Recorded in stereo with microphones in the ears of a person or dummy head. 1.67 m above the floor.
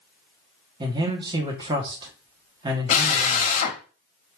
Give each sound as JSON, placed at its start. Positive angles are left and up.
{"t": 0.8, "sound": "a man speaking", "side_deg": -25, "distance_m": 1.1}
{"t": 2.9, "sound": "a drill", "side_deg": 35, "distance_m": 0.8}